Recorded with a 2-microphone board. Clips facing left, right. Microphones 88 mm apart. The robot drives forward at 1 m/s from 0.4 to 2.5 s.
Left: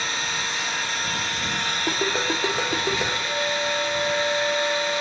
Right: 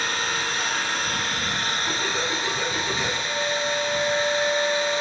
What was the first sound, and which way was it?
An engine running, 65° right (ahead or behind).